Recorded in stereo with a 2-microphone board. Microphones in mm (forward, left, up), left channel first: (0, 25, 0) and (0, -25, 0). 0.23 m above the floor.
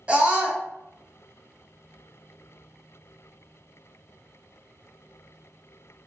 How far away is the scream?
About 1.3 m.